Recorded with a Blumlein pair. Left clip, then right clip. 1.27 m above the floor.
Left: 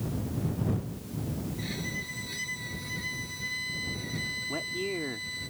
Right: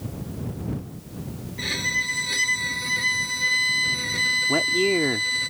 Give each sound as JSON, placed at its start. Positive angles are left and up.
{"t": 1.6, "sound": "a violin", "azimuth_deg": -30}
{"t": 4.5, "sound": "a man speaking", "azimuth_deg": -60}